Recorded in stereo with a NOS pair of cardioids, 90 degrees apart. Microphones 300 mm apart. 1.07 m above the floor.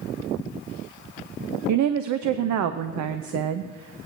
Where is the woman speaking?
70° right, 0.7 m.